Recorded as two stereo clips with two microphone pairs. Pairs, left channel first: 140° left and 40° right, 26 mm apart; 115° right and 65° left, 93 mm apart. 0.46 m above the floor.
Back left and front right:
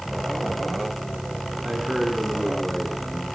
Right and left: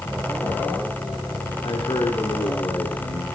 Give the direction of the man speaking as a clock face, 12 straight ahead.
3 o'clock.